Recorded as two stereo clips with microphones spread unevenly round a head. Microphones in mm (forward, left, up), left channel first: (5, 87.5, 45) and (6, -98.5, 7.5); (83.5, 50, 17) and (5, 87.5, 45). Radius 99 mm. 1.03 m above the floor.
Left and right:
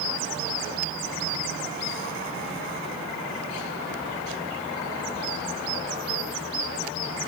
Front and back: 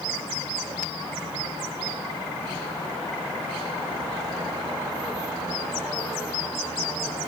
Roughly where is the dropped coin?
I don't hear a dropped coin.